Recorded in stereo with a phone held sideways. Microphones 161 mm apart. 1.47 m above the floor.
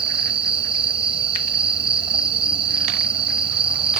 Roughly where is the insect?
Right.